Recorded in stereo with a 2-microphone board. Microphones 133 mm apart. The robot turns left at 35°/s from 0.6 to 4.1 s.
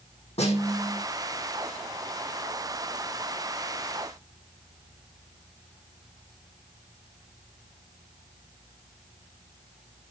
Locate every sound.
0.4 s a snare drum: 60° left (ahead or behind), 5.5 m; by 1.0 s 70° left (ahead or behind), 5.5 m